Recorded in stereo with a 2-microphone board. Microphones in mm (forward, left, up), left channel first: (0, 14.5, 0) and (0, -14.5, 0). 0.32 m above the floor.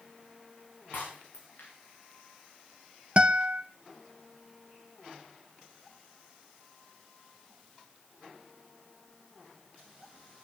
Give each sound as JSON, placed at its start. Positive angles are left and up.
{"t": 0.9, "sound": "breaking glass", "side_deg": 85, "distance_m": 7.0}
{"t": 3.2, "sound": "a guitar", "side_deg": -40, "distance_m": 0.8}